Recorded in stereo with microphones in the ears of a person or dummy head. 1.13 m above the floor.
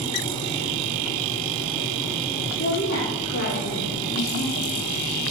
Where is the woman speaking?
45° left (ahead or behind), 3 m; by 4.8 s 65° left (ahead or behind), 1.6 m.